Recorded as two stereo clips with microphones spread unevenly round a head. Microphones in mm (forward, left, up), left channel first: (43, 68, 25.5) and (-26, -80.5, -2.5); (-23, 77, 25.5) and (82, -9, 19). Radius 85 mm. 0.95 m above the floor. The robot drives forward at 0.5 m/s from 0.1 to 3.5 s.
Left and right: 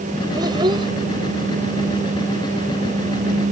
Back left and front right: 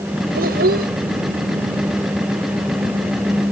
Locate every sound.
0.3 s a child speaking: 50° right